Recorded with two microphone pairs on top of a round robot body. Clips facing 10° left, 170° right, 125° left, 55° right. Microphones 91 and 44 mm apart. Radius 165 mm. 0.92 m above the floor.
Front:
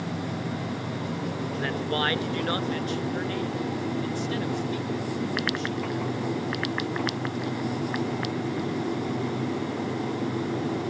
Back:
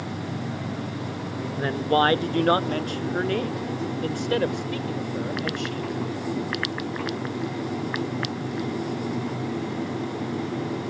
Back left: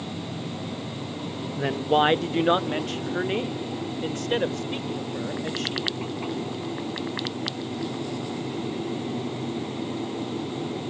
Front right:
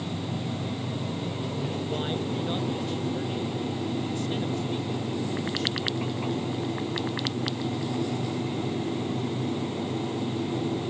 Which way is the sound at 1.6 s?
130° left.